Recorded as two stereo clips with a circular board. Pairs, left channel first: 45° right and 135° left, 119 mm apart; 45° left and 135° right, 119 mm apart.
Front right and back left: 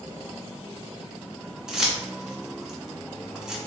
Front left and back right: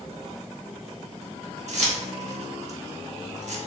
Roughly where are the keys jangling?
Behind right.